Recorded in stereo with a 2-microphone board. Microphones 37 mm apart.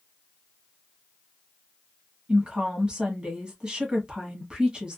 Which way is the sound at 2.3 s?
25° right (ahead or behind).